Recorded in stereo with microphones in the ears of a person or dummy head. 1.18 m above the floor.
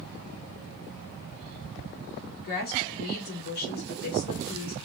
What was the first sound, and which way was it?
A woman speaking, 50° left (ahead or behind).